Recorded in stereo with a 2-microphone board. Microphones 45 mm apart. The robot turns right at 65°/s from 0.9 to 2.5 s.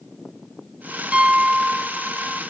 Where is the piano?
25° right (ahead or behind), 0.7 m; by 2.4 s 5° left (ahead or behind), 0.7 m.